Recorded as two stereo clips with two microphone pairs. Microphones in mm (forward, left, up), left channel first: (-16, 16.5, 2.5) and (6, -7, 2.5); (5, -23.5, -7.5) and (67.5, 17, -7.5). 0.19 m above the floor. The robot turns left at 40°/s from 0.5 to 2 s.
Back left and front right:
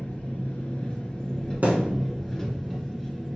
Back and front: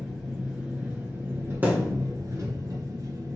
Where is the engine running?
110° left, 1.6 m; by 3.4 s 50° left, 1.6 m.